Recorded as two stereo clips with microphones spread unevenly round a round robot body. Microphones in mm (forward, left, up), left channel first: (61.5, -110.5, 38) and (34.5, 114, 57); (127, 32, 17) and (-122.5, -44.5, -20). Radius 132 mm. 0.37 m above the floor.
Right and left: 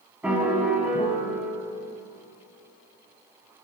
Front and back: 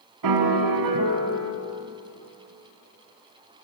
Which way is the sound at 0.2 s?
Straight behind.